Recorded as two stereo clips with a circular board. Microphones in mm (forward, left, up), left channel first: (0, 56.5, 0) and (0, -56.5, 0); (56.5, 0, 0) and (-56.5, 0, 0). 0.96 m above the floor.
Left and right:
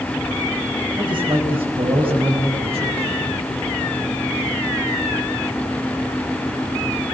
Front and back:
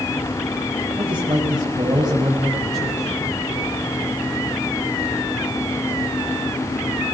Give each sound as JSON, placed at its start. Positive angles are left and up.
{"t": 1.0, "sound": "a man speaking", "azimuth_deg": -135, "distance_m": 4.5}